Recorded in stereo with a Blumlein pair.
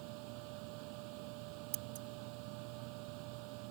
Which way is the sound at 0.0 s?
45° right.